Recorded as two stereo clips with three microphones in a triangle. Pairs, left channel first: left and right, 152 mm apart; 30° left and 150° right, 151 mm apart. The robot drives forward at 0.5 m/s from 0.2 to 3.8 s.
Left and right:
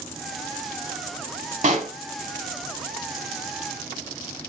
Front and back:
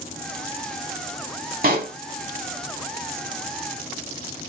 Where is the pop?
130° right, 0.8 m; by 1.9 s 135° right, 0.9 m.